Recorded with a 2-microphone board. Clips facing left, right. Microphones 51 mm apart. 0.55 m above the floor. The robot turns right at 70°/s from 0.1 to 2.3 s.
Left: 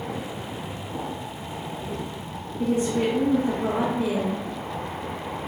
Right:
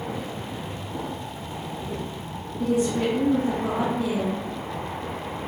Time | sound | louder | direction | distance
2.6 | a woman speaking | even | 35° left (ahead or behind) | 0.9 m